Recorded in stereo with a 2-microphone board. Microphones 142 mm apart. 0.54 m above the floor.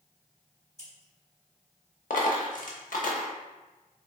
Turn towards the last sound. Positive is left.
turn(degrees=70)  # may be behind; listen again after turning